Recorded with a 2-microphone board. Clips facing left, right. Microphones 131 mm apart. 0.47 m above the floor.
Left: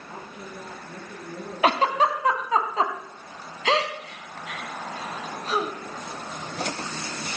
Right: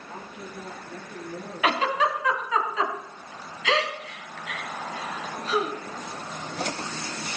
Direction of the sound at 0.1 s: 30° left (ahead or behind).